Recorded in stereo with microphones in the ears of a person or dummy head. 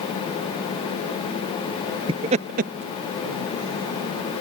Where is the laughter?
30° right (ahead or behind); by 4.4 s 45° right (ahead or behind).